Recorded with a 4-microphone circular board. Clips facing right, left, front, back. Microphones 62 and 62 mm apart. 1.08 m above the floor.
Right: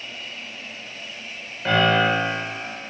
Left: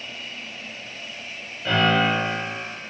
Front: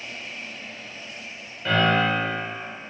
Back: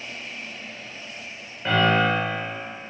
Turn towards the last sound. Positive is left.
turn(degrees=-115)